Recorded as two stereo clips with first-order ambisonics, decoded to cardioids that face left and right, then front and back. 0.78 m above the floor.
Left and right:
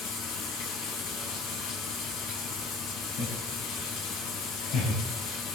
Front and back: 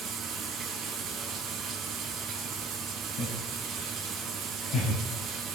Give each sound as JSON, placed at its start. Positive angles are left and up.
{"t": 0.0, "sound": "running water", "azimuth_deg": 110, "distance_m": 4.5}
{"t": 3.2, "sound": "laughter", "azimuth_deg": 45, "distance_m": 4.0}